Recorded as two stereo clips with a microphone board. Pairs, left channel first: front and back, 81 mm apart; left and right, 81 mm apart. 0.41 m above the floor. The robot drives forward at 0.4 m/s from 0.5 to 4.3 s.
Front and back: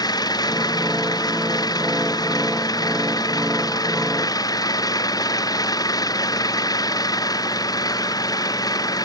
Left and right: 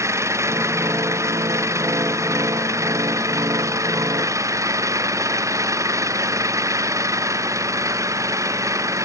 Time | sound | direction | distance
0.0 | an engine running | 35° right | ?